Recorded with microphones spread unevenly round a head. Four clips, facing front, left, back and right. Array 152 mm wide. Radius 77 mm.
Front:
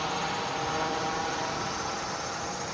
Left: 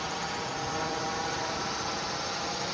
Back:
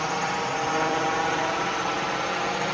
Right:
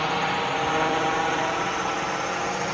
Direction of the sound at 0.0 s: 120° right.